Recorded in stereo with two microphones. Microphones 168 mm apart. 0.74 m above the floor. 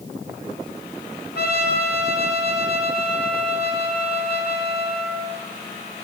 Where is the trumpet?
75° left (ahead or behind), 2 m.